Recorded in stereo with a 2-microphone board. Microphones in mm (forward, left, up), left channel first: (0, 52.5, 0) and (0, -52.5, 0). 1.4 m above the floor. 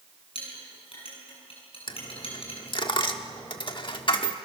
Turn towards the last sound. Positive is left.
turn(degrees=50)  # may be behind; listen again after turning